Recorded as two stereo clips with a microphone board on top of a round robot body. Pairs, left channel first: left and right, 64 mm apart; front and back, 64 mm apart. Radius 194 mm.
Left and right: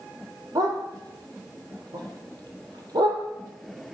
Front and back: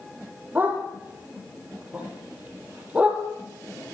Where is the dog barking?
115° right, 9.5 m; by 3.2 s 110° right, 8.5 m.